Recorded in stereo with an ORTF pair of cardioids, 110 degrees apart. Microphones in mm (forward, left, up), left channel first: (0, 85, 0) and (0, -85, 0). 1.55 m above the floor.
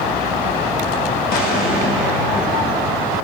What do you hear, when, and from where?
1.3 s an explosion: 65° left, 5.5 m